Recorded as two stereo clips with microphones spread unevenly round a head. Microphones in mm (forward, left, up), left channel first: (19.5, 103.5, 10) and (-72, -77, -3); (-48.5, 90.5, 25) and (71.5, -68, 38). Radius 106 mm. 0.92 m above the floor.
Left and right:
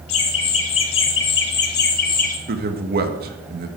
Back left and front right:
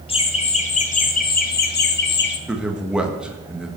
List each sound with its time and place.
0.1 s laughter: 70° left, 2 m; by 2.4 s 110° left, 1.9 m
2.5 s a man speaking: 140° right, 1.3 m